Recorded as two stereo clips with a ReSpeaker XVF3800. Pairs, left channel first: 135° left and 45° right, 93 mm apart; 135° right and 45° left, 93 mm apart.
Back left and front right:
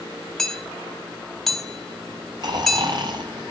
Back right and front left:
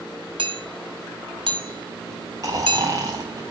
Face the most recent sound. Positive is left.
turn(degrees=-5)